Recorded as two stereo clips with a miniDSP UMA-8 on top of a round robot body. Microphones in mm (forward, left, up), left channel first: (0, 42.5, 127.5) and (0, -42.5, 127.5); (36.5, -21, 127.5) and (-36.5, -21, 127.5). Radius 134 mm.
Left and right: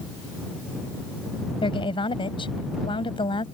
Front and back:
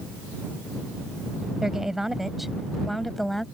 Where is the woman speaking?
95° left; by 3.5 s 85° left.